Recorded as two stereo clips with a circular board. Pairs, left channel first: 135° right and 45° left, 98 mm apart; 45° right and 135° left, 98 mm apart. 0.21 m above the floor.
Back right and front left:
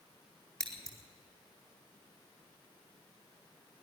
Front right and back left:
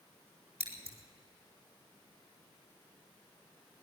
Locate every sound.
0.6 s scissors: 140° left, 3.5 m